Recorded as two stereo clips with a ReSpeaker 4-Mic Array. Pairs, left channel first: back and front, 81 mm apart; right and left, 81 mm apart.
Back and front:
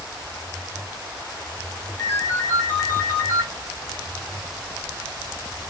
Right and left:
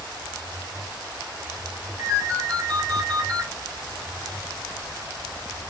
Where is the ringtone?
130° left, 1.0 m.